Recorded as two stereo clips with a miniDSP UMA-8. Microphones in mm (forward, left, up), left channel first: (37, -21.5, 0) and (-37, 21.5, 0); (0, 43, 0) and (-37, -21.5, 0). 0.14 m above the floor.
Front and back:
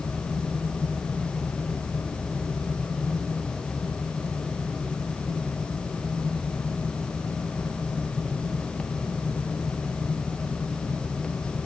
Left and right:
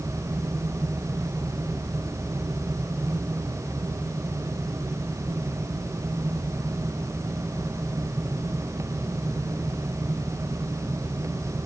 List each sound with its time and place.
Only background noise.